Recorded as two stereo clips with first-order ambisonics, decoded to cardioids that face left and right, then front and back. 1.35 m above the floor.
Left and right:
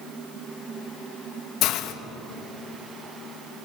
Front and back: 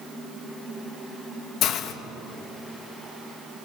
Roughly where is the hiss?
Ahead left.